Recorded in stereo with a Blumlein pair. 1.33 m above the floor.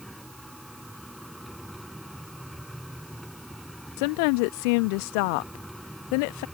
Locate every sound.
0.0 s a machine running: straight ahead
4.0 s a woman speaking: 45° left